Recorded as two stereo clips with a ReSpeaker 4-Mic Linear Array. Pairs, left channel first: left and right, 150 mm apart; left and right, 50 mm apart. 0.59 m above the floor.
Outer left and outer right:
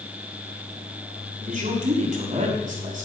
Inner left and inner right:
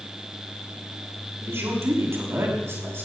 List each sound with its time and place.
1.4 s a man speaking: 60° right (ahead or behind), 6 m